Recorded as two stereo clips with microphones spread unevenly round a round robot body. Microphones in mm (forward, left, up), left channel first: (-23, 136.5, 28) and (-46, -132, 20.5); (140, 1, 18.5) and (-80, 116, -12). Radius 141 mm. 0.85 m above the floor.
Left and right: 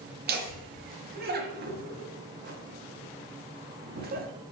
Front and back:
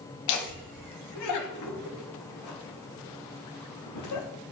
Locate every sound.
0.3 s laughter: 40° right, 1.2 m